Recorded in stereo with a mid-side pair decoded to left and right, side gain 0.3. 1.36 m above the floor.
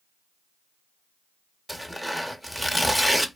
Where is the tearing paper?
5° left, 0.6 m.